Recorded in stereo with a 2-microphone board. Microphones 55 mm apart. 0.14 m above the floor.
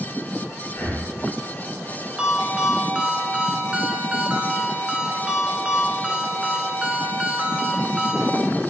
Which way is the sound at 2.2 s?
25° right (ahead or behind).